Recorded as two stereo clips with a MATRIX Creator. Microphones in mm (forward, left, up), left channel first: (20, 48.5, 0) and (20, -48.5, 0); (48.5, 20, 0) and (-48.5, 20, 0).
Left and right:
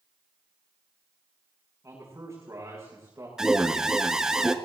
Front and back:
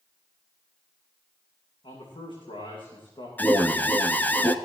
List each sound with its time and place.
1.8 s a man speaking: 30° right, 8 m
3.4 s an alarm: 20° right, 0.8 m